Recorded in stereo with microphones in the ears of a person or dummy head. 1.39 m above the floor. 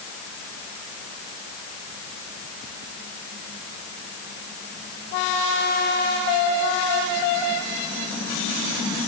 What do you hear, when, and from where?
Only background noise.